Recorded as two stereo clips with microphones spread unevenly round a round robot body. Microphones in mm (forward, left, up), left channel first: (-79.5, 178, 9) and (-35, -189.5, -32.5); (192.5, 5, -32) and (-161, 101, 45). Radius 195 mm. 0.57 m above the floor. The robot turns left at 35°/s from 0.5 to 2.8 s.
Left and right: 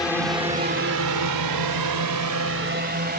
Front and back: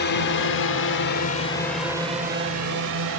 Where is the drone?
10° left; by 3.2 s 150° right.